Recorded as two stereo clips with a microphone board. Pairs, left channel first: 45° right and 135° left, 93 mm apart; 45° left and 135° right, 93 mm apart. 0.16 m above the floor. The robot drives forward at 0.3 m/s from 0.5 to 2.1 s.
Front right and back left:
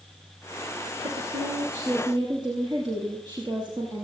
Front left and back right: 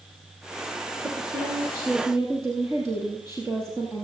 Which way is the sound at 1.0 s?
165° left.